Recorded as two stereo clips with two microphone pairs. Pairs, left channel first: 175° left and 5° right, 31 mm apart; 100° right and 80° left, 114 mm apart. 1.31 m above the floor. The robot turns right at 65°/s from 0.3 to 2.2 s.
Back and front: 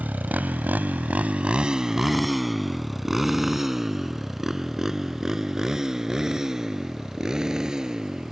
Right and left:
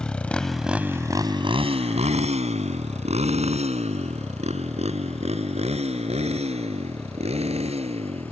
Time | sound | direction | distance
0.0 | a motorcycle | 15° right | ?